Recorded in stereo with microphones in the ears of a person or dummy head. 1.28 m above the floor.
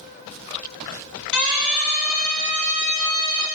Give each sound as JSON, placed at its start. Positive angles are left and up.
{"t": 1.3, "sound": "a siren", "side_deg": 60, "distance_m": 4.0}